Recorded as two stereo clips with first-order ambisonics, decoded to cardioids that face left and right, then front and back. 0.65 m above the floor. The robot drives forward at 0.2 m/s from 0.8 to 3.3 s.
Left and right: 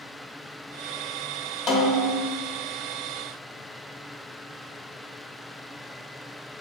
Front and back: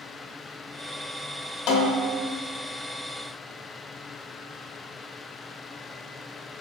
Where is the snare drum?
40° left, 0.6 m; by 2.2 s 50° left, 0.6 m.